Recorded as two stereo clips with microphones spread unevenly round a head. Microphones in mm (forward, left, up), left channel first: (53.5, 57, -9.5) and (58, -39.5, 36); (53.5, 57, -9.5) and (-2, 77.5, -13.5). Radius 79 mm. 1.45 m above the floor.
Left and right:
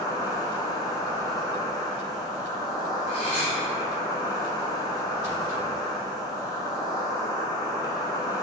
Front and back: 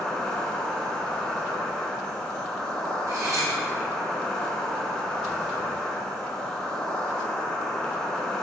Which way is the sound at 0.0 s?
30° left.